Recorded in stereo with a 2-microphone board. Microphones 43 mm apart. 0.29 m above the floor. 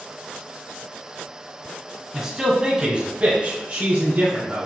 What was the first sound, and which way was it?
A man speaking, 10° right (ahead or behind).